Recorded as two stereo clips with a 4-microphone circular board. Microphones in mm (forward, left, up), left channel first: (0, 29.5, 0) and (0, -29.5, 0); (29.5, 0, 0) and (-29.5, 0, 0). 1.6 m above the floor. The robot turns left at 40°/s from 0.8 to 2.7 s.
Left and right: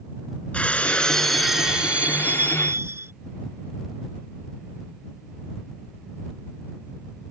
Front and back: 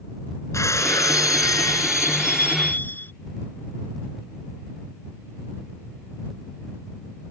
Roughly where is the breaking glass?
Ahead left.